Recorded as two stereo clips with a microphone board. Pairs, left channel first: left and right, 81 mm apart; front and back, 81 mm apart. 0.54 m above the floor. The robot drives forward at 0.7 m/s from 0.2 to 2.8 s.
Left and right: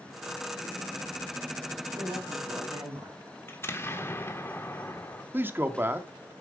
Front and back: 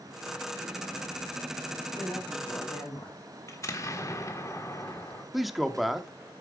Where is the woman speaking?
45° right, 3.5 m; by 3.2 s 50° right, 3 m.